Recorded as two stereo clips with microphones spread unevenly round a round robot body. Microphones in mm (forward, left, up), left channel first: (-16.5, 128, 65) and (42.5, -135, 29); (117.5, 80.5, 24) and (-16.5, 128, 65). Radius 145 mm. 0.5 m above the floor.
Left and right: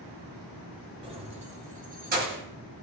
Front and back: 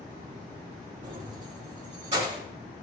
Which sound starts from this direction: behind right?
Keys jangling, at 1.0 s.